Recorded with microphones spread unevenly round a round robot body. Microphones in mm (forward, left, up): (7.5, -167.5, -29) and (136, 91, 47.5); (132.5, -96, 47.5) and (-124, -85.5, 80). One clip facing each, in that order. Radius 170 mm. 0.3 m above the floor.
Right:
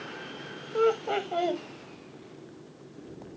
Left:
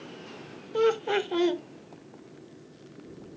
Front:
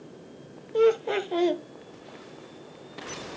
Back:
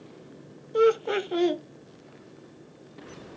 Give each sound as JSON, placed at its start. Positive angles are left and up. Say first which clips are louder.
{"t": 0.7, "sound": "laughter", "louder": "left 1 dB, even", "azimuth_deg": 105, "distance_m": 1.0}